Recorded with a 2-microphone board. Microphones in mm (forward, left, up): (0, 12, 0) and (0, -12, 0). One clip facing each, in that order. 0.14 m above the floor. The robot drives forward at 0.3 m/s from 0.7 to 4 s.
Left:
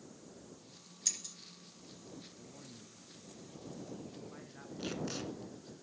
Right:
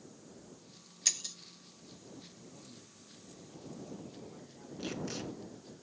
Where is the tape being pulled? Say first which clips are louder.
Even; 5° left (ahead or behind), 1.8 m.